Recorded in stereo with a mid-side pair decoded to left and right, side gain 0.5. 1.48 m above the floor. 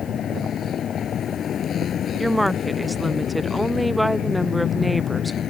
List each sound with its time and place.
0.0 s a vehicle: 50° left
2.2 s a woman speaking: 5° right